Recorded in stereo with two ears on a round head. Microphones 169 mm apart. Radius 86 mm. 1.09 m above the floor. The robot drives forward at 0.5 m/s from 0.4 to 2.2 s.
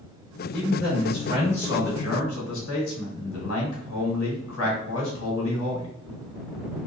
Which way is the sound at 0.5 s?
55° left (ahead or behind).